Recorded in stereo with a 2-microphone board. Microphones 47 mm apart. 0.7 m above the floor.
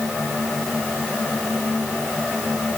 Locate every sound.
Only background noise.